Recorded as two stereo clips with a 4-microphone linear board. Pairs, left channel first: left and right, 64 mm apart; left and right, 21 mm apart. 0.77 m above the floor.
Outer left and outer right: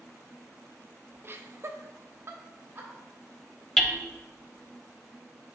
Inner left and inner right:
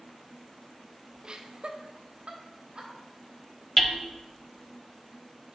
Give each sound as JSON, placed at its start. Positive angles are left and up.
{"t": 1.2, "sound": "laughter", "side_deg": -35, "distance_m": 0.6}
{"t": 3.8, "sound": "hammering", "side_deg": 5, "distance_m": 0.7}